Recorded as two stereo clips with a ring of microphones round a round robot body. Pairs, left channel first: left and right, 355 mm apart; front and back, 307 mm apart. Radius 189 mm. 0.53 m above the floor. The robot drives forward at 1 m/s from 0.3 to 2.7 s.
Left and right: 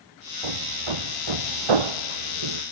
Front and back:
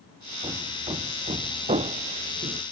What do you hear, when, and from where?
0.4 s hammering: 100° right; by 2.6 s 105° right